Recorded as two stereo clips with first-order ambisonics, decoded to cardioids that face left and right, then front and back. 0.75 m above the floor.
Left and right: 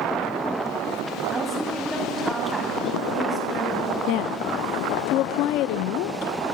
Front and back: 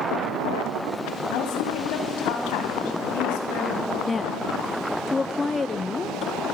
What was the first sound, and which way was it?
A woman speaking, 5° right.